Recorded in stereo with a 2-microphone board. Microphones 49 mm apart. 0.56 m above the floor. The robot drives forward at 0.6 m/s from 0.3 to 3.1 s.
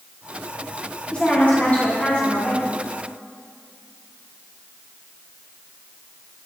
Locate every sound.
1.1 s a woman speaking: 30° left (ahead or behind), 1.1 m; by 2.7 s 25° left (ahead or behind), 1.1 m